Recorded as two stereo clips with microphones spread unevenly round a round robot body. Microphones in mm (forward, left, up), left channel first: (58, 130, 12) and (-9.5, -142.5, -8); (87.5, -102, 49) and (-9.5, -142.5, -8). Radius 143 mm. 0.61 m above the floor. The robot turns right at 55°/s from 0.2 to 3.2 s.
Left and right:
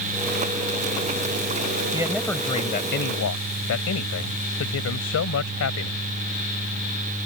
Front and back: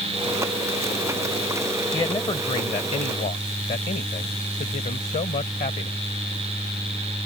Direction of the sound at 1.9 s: 30° right.